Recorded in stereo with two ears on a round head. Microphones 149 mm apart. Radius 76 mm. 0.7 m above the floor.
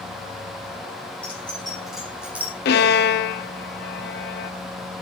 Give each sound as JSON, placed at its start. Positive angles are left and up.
{"t": 1.2, "sound": "keys jangling", "side_deg": 10, "distance_m": 5.0}
{"t": 2.6, "sound": "a violin", "side_deg": 65, "distance_m": 0.7}